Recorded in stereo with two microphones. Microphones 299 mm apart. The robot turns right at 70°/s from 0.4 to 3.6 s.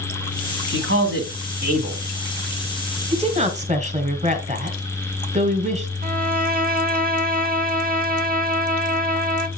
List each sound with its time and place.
0.7 s a man speaking: 115° right, 1.8 m; by 2.0 s 20° right, 1.8 m
3.1 s a woman speaking: 20° right (ahead or behind), 1.3 m; by 5.9 s 25° right (ahead or behind), 1.3 m
6.0 s a violin: 30° right (ahead or behind), 0.6 m